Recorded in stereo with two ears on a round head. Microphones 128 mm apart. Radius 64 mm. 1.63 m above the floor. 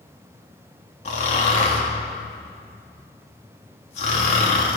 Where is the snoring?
50° left (ahead or behind), 2.5 m.